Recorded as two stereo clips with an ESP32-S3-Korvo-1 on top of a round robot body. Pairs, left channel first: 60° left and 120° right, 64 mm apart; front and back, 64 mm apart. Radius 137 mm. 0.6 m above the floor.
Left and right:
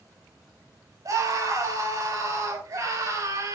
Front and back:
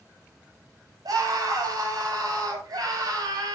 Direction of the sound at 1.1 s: 155° right.